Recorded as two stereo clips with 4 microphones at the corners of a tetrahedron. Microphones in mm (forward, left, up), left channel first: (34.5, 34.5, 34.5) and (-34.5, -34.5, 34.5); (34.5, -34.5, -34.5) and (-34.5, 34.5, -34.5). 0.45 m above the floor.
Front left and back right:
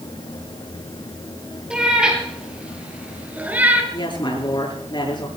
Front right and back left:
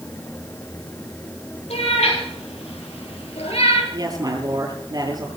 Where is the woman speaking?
85° left, 7.5 m.